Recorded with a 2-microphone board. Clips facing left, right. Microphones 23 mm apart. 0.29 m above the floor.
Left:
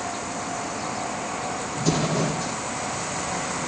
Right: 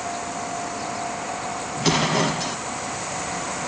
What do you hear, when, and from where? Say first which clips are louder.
1.8 s an explosion: right 4 dB; 80° right, 0.5 m